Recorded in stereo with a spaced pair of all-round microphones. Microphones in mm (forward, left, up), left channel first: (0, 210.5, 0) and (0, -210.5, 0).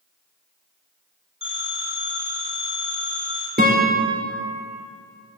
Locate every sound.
1.4 s a phone ringing: 60° right (ahead or behind), 5 m
3.6 s a guitar: 20° right (ahead or behind), 4 m